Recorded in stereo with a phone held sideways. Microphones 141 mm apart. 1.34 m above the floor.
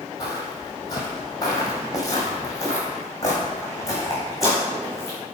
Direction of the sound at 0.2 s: 30° left (ahead or behind).